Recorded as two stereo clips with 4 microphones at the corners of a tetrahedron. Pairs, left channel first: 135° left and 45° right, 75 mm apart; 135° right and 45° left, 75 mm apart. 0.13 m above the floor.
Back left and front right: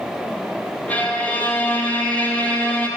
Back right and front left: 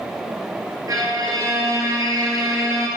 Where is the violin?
65° left, 1.3 m.